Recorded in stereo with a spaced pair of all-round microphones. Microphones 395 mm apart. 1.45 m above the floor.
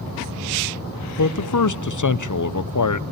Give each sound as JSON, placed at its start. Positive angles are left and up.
{"t": 1.2, "sound": "a man speaking", "side_deg": 50, "distance_m": 0.7}